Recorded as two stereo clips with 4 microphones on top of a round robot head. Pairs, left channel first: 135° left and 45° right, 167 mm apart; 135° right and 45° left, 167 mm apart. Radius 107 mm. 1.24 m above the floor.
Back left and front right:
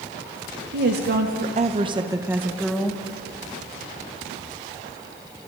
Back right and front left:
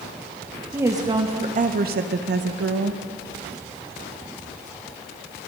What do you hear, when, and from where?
0.7 s a woman speaking: 35° right, 1.6 m; by 3.0 s 50° left, 2 m